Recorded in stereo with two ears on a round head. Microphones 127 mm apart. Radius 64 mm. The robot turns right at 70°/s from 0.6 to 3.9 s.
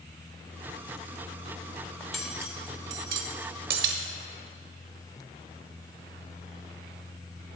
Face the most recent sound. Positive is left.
turn(degrees=-55)  # may be behind; listen again after turning